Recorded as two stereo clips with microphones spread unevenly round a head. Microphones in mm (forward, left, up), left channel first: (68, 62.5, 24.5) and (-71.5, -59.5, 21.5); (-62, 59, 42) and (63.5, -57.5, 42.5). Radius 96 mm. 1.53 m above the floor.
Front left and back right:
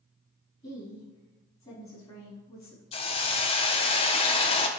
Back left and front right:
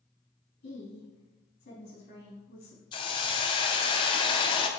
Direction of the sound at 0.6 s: 100° left.